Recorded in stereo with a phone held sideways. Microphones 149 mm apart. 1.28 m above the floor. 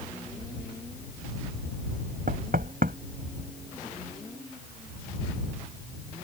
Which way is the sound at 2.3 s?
75° right (ahead or behind).